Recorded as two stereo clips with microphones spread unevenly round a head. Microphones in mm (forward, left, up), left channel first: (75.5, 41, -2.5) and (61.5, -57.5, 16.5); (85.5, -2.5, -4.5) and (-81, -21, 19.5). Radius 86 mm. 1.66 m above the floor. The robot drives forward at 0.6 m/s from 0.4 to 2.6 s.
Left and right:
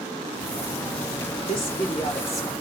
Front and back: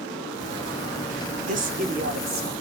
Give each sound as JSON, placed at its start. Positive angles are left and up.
{"t": 1.4, "sound": "a woman speaking", "azimuth_deg": 145, "distance_m": 1.0}